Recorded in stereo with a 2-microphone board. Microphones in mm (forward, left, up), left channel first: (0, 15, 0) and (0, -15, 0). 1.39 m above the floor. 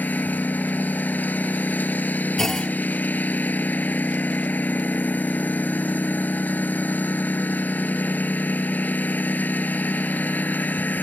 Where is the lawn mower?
75° left (ahead or behind).